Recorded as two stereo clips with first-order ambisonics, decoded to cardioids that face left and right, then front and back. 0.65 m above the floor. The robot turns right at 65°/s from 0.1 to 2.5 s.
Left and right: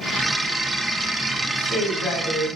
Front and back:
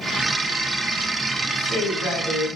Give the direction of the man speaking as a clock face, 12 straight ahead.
11 o'clock.